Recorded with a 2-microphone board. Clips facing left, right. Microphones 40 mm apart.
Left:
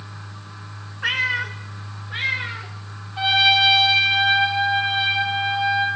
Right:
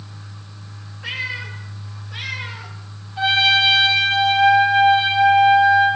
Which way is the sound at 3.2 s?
15° left (ahead or behind).